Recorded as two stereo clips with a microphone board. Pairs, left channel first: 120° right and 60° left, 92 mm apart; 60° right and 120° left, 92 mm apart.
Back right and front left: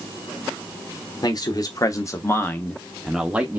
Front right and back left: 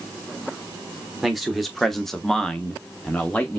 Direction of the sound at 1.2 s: 150° right.